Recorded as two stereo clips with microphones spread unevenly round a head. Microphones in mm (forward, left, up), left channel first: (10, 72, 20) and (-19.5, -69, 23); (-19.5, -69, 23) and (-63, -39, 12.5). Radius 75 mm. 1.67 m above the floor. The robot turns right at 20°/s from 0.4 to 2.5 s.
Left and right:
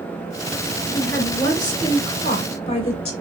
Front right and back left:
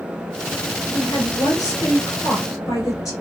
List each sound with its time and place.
0.9 s a woman speaking: 5° right, 2 m; by 3.1 s 30° left, 2 m